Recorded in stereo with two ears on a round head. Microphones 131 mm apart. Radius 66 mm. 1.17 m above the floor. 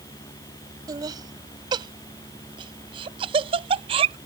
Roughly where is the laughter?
Right.